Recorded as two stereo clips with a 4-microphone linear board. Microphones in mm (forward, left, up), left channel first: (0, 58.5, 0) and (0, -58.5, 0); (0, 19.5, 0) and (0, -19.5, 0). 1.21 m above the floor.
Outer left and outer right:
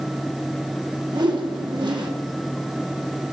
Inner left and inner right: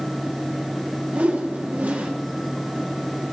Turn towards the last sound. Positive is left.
turn(degrees=-40)  # may be behind; listen again after turning